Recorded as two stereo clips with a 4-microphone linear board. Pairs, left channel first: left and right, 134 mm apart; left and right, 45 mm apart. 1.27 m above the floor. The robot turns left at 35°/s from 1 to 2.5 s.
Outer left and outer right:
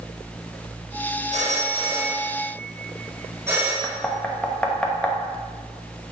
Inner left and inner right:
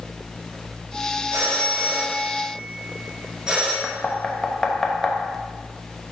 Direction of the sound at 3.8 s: 10° left (ahead or behind).